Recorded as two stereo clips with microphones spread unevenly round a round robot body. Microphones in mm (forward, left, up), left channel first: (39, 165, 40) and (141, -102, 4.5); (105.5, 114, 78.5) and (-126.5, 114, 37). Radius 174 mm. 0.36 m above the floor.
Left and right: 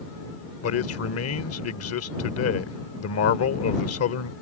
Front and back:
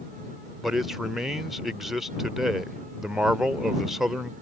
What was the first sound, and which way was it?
A man speaking, 105° left.